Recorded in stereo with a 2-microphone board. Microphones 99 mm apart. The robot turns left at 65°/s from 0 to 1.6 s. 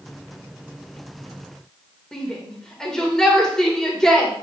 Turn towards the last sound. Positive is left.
turn(degrees=5)  # may be behind; listen again after turning